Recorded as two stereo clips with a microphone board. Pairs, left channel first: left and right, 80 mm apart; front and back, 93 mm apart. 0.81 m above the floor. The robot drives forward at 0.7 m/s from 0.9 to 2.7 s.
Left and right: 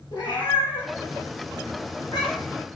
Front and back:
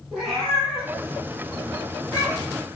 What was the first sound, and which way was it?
A cat meowing, 90° left.